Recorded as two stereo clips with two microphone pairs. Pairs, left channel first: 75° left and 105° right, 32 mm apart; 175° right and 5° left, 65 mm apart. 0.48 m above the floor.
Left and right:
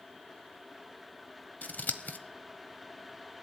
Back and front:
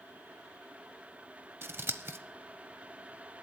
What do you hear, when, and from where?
1.6 s scissors: 55° left, 0.9 m